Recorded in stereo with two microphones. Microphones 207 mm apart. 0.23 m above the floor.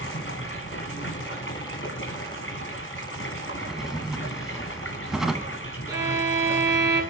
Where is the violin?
15° right (ahead or behind), 2.5 m.